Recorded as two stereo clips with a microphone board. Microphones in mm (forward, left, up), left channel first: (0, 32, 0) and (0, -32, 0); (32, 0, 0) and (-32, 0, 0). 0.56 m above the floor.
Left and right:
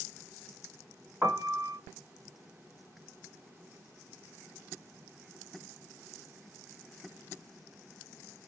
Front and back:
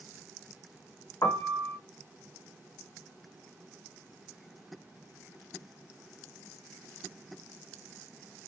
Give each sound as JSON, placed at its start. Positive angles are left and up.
{"t": 1.2, "sound": "a piano", "azimuth_deg": -20, "distance_m": 1.1}